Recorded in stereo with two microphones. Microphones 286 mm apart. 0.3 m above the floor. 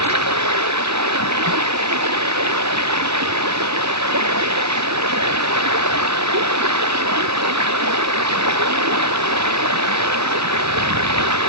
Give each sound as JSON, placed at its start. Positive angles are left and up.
{"t": 0.0, "sound": "running water", "side_deg": -70}